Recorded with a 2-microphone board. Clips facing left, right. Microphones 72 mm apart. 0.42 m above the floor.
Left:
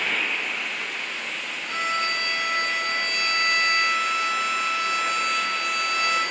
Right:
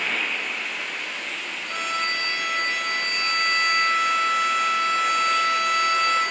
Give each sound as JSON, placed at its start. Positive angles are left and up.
{"t": 1.7, "sound": "a violin", "side_deg": 15, "distance_m": 10.0}